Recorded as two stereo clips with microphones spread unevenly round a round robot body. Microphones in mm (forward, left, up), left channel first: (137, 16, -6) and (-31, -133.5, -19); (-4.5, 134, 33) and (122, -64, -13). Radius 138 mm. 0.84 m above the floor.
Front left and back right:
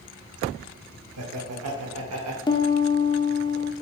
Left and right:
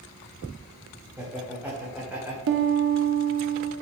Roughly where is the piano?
Ahead right.